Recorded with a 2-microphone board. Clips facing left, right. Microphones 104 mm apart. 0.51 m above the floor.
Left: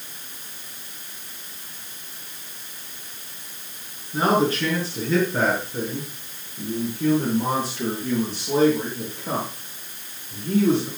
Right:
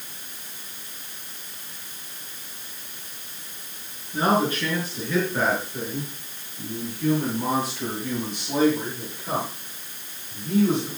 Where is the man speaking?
30° left (ahead or behind), 6.5 m; by 10.9 s 40° left (ahead or behind), 10.5 m.